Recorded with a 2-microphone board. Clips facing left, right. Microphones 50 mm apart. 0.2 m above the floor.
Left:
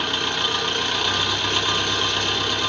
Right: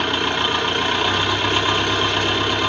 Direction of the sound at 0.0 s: 20° right (ahead or behind).